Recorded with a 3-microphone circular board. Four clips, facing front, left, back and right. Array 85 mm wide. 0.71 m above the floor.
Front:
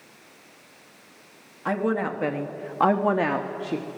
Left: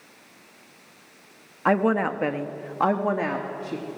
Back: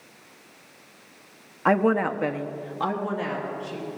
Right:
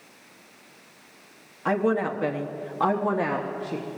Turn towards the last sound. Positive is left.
turn(degrees=5)